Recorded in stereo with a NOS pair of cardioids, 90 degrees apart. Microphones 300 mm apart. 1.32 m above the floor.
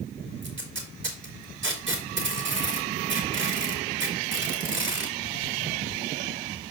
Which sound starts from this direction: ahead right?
Tape being pulled, at 0.4 s.